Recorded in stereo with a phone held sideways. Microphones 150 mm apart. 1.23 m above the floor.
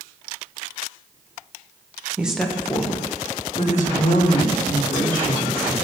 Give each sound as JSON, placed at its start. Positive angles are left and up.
{"t": 2.2, "sound": "a woman speaking", "side_deg": -10, "distance_m": 1.2}